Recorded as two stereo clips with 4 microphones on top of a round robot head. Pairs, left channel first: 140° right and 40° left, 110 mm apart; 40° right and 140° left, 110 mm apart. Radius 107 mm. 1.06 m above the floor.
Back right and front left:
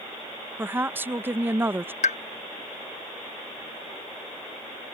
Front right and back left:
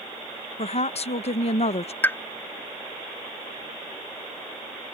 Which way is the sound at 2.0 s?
115° right.